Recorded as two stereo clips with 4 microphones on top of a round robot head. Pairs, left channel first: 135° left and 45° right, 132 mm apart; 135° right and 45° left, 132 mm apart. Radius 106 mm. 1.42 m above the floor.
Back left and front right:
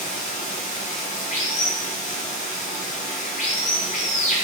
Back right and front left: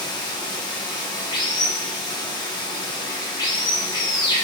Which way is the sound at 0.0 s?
165° left.